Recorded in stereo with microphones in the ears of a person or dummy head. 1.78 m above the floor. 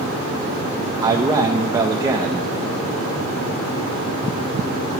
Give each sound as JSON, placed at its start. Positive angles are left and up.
{"t": 1.0, "sound": "a man speaking", "side_deg": -20, "distance_m": 0.6}